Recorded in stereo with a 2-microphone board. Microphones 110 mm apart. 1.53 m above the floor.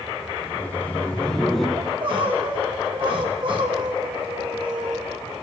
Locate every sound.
0.4 s laughter: 20° left (ahead or behind), 2.5 m; by 1.7 s centre (ahead or behind), 1.8 m
1.8 s crying: 50° right (ahead or behind), 2 m